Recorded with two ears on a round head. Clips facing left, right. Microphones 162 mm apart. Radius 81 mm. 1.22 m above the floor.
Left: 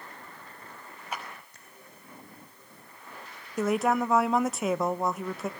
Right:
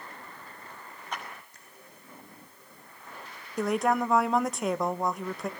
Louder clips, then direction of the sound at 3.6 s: Left 1 dB; centre (ahead or behind).